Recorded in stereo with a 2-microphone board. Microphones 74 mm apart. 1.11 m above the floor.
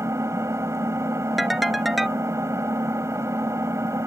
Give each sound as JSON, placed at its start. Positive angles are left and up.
{"t": 0.0, "sound": "an engine running", "side_deg": -35}
{"t": 1.4, "sound": "a ringtone", "side_deg": 0}